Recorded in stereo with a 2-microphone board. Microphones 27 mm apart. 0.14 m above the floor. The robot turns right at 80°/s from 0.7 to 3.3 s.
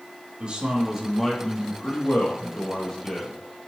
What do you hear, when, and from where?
0.4 s a man speaking: 40° right, 4 m; by 3.7 s 170° left, 4 m